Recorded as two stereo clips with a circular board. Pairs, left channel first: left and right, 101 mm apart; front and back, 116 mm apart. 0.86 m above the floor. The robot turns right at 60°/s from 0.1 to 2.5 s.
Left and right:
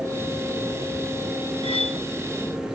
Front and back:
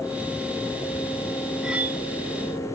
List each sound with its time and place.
1.6 s cutlery clinking: 95° left, 0.7 m; by 2.0 s 120° left, 0.7 m